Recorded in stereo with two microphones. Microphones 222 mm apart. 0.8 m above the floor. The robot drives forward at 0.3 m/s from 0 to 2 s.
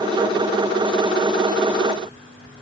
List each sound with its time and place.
Only background noise.